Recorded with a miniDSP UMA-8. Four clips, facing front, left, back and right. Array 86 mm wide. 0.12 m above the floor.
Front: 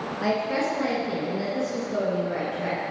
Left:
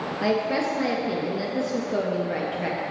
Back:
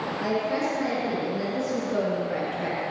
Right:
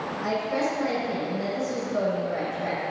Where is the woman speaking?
70° left, 2.5 m; by 2.8 s 105° left, 3 m.